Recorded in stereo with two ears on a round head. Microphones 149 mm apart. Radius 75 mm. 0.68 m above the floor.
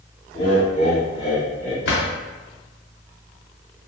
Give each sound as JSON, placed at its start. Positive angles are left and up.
{"t": 0.3, "sound": "laughter", "side_deg": 50, "distance_m": 1.4}
{"t": 1.9, "sound": "a drawer", "side_deg": 70, "distance_m": 1.2}